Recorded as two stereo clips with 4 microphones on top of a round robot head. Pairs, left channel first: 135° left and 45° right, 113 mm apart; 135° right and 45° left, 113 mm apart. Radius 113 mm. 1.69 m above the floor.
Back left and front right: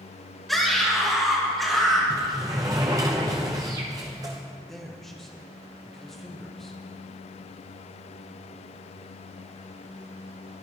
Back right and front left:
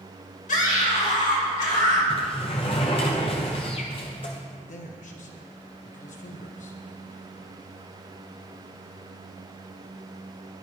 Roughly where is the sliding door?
Right.